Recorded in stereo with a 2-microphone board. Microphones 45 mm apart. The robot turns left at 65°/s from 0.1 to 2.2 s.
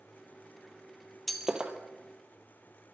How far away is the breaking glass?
About 1.5 m.